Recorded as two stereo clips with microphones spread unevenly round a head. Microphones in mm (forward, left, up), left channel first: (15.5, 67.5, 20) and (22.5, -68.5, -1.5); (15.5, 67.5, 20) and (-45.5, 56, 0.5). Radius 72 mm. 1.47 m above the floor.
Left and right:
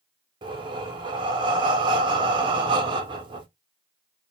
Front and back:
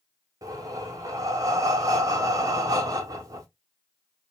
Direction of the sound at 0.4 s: 145° right.